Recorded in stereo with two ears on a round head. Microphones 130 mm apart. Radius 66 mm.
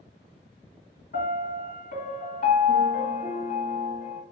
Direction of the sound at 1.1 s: 60° left (ahead or behind).